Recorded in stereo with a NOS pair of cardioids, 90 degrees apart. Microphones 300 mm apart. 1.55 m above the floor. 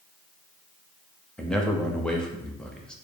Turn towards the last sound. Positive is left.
turn(degrees=0)